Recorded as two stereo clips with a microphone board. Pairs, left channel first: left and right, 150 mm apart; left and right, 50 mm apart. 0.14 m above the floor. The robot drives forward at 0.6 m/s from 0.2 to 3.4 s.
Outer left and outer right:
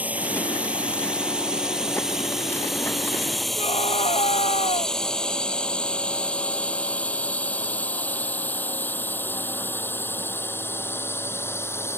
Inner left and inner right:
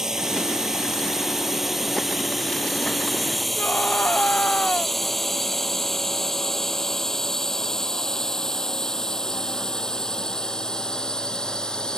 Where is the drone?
10° right (ahead or behind); by 12.0 s 15° left (ahead or behind).